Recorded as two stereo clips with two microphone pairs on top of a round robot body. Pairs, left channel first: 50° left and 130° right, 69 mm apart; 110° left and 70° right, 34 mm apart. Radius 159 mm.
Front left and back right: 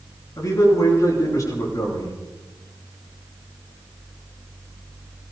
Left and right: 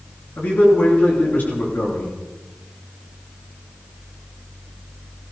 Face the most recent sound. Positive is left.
turn(degrees=85)